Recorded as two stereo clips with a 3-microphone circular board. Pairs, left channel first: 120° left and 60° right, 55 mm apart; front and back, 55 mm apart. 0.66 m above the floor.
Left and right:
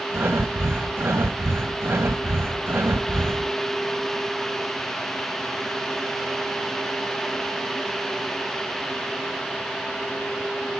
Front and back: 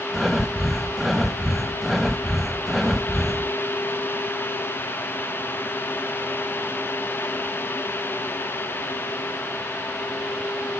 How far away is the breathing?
About 0.7 m.